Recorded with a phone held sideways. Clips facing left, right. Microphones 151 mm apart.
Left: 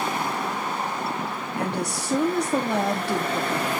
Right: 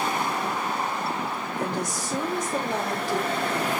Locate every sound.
1.6 s a woman speaking: 65° left (ahead or behind), 2.5 m